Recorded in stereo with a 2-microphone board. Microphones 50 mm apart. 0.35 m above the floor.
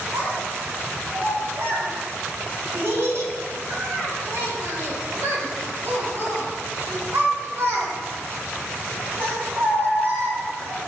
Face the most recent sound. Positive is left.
turn(degrees=-60)  # may be behind; listen again after turning